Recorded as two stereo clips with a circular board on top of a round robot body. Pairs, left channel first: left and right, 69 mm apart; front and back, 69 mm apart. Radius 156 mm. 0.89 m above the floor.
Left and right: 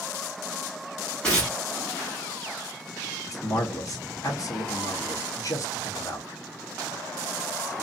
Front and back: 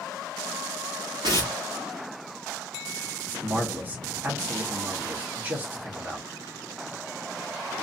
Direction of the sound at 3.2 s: 120° left.